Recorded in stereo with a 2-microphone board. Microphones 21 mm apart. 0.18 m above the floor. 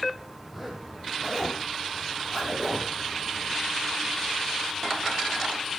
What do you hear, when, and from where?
0.5 s a zipper: 10° right (ahead or behind), 3.5 m